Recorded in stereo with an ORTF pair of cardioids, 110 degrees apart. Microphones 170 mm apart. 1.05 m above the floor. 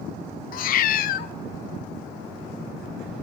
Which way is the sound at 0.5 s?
60° left.